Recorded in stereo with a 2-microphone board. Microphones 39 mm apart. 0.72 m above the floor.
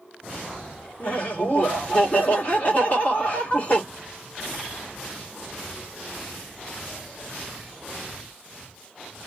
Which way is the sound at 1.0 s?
40° left (ahead or behind).